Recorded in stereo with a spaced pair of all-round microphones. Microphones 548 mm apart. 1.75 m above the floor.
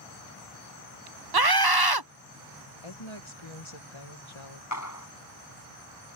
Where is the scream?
40° right (ahead or behind).